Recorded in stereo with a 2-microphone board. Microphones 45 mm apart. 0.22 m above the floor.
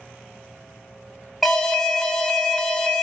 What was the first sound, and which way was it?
An alarm, 5° left (ahead or behind).